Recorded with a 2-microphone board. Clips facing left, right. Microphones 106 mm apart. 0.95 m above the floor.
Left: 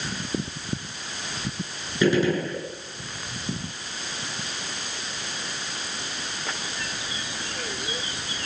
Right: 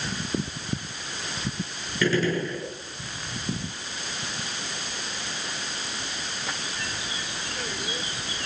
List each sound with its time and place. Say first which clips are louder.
2.0 s a gunshot: left 3 dB; 15° left (ahead or behind), 7.5 m